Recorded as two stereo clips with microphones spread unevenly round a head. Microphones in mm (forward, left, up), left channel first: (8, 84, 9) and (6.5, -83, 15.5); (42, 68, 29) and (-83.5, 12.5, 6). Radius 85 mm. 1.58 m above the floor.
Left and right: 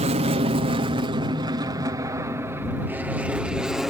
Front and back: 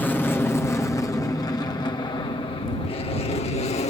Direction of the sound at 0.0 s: 60° right.